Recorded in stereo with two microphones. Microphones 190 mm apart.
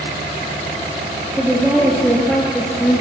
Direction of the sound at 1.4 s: 5° right (ahead or behind).